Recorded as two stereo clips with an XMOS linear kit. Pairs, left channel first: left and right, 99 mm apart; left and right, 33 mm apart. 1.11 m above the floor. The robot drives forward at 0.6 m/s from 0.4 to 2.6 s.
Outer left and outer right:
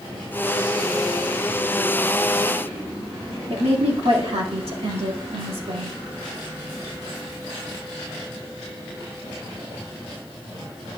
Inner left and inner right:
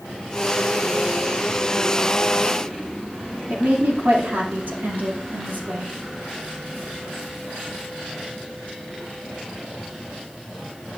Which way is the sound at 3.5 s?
70° right (ahead or behind).